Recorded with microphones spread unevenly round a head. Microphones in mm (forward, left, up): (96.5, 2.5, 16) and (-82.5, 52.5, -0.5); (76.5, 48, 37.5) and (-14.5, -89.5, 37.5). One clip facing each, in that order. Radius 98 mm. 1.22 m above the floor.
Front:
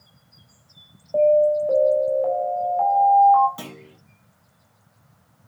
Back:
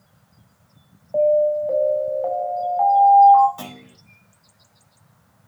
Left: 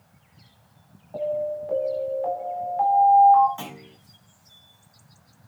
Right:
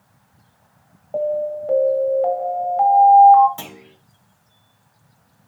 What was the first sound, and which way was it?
An alarm, 85° right.